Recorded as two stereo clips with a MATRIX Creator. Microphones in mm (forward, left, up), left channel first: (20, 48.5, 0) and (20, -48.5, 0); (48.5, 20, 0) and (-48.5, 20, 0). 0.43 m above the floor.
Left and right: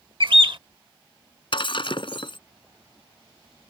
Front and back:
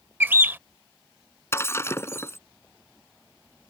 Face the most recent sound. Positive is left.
turn(degrees=65)